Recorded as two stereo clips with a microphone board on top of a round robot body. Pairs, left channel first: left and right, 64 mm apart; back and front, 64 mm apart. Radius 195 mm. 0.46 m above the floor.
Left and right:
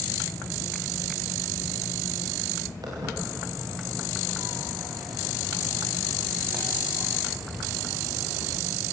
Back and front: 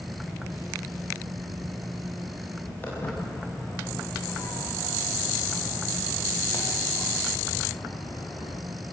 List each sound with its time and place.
2.8 s footsteps: 115° right, 9 m; by 8.6 s 160° right, 5.5 m